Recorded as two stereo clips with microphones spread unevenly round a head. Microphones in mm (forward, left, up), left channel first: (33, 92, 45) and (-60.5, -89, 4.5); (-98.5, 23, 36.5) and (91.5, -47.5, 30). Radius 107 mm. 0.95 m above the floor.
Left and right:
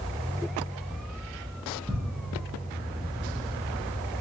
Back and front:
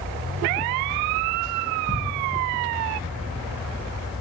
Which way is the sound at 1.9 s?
140° right.